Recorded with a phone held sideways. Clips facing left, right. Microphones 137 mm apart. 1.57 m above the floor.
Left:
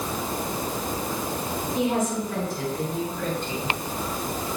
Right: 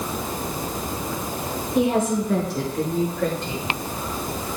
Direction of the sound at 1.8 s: 55° right (ahead or behind).